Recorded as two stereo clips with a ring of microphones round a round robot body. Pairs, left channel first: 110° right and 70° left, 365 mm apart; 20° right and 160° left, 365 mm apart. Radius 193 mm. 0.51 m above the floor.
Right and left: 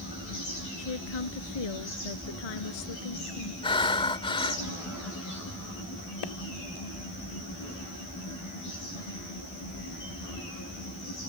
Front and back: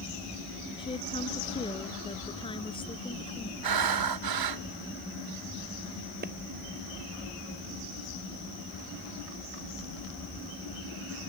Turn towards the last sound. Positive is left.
turn(degrees=-135)